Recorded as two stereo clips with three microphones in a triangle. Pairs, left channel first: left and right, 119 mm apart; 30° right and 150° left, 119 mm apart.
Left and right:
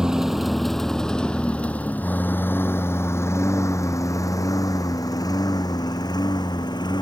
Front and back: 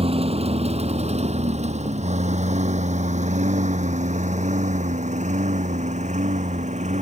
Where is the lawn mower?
175° right; by 7.0 s 140° left.